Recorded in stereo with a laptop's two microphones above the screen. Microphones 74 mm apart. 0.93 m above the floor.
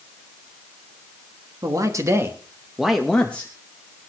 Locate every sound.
1.6 s a man speaking: 50° right (ahead or behind), 1.4 m; by 3.5 s 30° left (ahead or behind), 1.1 m